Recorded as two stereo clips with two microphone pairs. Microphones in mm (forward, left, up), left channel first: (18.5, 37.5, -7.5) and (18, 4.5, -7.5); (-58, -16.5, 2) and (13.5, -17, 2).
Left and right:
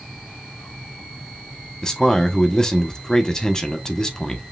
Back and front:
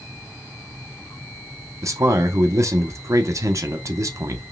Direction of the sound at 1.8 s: 25° left.